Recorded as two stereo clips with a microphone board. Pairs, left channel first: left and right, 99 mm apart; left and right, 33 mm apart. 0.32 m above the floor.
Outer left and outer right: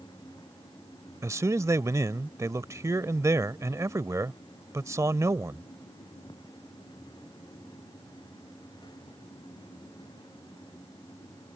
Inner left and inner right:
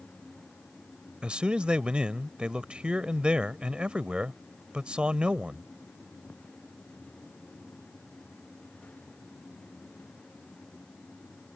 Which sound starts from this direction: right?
A man speaking, at 1.2 s.